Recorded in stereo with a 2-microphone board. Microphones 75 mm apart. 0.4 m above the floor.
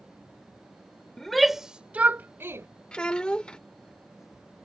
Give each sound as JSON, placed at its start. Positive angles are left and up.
{"t": 1.2, "sound": "a shout", "side_deg": 5}
{"t": 2.9, "sound": "a child speaking", "side_deg": 15}